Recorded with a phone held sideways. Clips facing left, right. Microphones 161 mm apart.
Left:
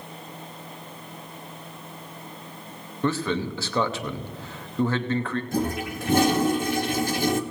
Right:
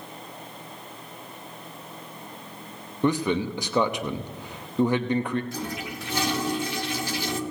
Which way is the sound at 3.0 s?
15° right (ahead or behind).